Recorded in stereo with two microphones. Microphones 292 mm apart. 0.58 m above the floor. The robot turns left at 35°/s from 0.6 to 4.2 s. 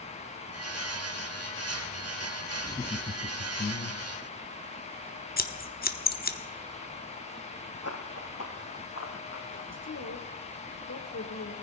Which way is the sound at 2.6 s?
170° left.